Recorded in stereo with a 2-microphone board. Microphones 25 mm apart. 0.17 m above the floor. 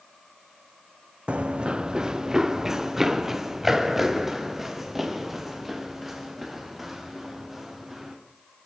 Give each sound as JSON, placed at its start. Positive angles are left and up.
{"t": 1.3, "sound": "running footsteps", "side_deg": -50, "distance_m": 0.6}